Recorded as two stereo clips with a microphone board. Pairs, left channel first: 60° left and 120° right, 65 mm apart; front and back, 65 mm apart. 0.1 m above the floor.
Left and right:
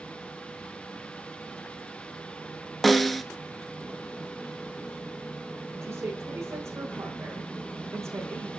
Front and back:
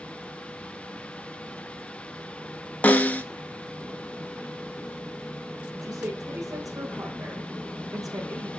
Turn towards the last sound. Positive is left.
turn(degrees=-165)